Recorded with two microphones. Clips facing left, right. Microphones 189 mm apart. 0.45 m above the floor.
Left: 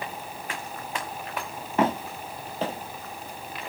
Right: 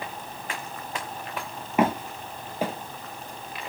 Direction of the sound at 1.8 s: 10° right (ahead or behind).